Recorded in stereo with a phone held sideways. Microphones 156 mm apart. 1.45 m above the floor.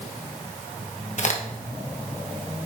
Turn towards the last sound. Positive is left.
turn(degrees=50)  # may be behind; listen again after turning